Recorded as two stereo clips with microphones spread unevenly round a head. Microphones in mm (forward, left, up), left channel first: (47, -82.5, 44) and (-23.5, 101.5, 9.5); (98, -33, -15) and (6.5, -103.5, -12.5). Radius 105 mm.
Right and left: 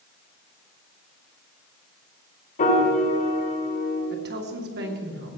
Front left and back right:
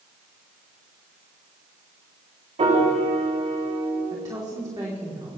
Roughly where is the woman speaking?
Behind left.